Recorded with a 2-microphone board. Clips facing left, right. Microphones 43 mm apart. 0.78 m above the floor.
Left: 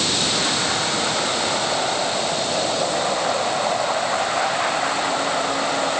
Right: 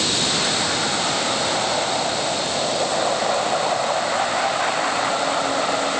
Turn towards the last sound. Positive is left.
No sound to turn to.